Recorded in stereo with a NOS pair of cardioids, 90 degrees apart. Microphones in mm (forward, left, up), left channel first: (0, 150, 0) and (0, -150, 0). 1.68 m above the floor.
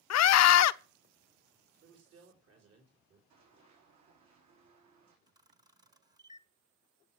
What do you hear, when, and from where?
0.1 s a scream: 60° left, 0.7 m
1.8 s a man speaking: 55° right, 4 m
3.3 s running footsteps: 70° right, 7.5 m
5.3 s a camera shutter: 15° right, 1.1 m